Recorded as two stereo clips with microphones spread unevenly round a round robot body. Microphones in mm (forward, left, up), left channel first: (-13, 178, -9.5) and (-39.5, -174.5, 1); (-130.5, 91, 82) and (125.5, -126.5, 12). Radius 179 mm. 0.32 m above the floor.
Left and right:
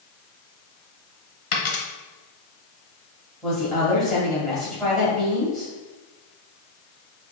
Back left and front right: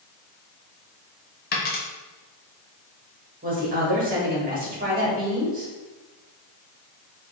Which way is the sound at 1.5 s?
70° left.